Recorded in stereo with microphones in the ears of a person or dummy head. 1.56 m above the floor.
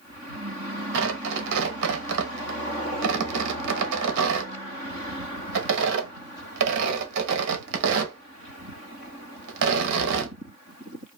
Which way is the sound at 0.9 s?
65° right (ahead or behind).